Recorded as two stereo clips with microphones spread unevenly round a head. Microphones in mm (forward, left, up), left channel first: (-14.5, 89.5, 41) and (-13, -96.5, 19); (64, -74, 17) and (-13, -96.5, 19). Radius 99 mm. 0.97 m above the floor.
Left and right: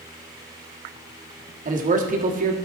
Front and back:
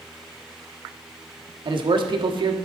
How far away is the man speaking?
About 1.5 m.